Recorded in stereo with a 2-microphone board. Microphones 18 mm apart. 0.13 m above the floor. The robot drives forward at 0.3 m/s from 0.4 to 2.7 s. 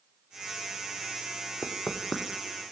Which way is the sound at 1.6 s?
50° left (ahead or behind).